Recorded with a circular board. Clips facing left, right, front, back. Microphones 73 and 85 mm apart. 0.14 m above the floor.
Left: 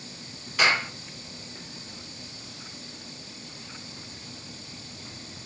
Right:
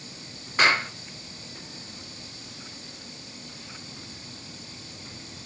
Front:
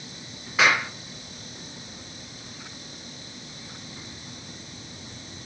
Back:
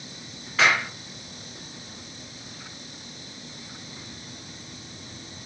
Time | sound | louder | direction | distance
0.6 | a clap | right 2 dB, even | 70° right | 1.3 m